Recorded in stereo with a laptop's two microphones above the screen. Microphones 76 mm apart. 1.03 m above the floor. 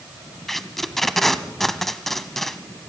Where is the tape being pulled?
5° left (ahead or behind), 1.0 m.